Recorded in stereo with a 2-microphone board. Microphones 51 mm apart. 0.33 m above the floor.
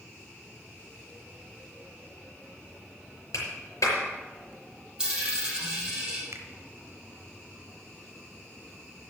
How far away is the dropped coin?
About 3 m.